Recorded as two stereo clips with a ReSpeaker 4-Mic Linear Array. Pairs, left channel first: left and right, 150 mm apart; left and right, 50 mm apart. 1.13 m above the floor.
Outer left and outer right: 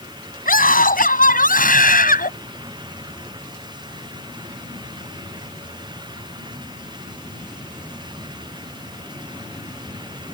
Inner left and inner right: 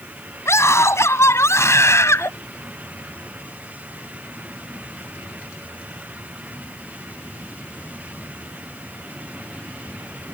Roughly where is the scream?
Left.